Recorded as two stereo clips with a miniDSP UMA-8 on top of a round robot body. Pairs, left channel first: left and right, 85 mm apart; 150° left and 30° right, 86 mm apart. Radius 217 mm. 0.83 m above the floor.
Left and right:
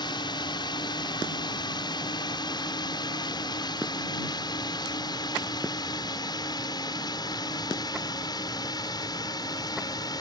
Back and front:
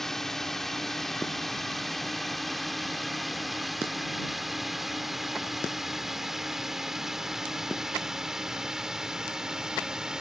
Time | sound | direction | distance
0.0 | a drone | 65° left | ?